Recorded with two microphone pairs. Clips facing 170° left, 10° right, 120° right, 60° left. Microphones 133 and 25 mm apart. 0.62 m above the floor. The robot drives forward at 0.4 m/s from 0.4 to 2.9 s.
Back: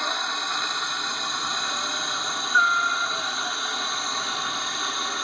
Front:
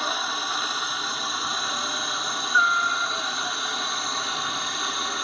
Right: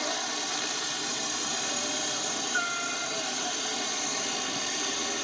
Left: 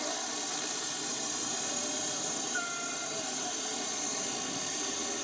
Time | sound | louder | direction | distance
0.0 | a helicopter | front 1 dB, right 5 dB | 95° right | ?